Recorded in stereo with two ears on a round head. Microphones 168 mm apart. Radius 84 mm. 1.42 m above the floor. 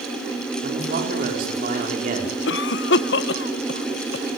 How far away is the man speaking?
About 4.5 m.